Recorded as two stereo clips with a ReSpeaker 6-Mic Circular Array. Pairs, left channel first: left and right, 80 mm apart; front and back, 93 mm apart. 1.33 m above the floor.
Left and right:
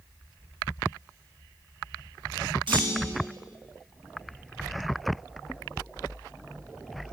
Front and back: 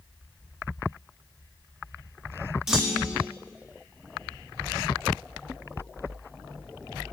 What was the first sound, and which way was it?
A clunk, 95° right.